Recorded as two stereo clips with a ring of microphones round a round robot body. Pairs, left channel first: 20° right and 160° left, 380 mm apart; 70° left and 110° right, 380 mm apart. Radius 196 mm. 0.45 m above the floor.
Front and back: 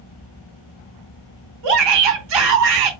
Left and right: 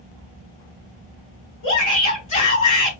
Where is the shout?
135° left, 3 m.